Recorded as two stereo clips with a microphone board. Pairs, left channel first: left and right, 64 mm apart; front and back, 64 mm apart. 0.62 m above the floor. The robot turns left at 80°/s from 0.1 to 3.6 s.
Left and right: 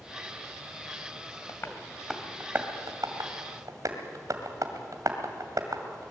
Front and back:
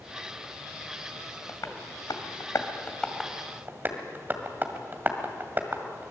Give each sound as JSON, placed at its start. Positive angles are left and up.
{"t": 1.5, "sound": "tapping", "azimuth_deg": 50, "distance_m": 2.0}